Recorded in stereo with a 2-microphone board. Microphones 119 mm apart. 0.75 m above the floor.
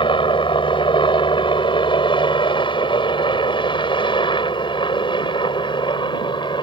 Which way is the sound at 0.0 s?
45° left (ahead or behind).